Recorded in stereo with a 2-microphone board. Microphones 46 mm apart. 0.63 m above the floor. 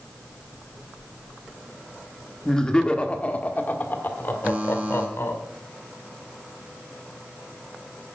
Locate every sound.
2.5 s laughter: 10° left (ahead or behind), 1.3 m; by 5.4 s 60° left (ahead or behind), 2 m
4.4 s a buzzer: 30° right (ahead or behind), 2.5 m